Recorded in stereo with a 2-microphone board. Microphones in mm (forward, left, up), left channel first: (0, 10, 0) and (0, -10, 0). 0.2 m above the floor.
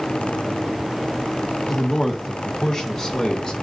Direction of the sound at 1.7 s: 5° left (ahead or behind).